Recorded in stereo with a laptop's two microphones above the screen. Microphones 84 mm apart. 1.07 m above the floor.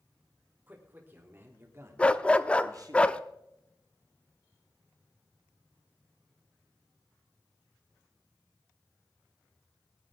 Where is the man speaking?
20° right (ahead or behind), 3.5 m; by 3.0 s 50° right (ahead or behind), 1.8 m.